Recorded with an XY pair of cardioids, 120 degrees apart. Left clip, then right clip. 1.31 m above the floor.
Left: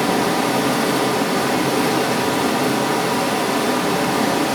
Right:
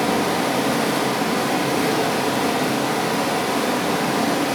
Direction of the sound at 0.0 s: 5° left.